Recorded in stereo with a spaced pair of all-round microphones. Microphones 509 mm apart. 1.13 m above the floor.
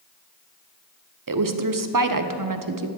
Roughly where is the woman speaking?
Right.